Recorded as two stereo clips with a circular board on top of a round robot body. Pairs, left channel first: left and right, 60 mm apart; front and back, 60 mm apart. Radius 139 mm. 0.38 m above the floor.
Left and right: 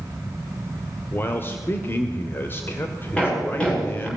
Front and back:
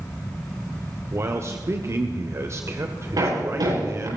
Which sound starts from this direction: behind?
Hammering, at 3.2 s.